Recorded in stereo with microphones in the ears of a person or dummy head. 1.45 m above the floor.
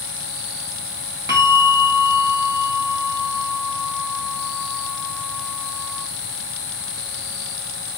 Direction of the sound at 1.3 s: 15° right (ahead or behind).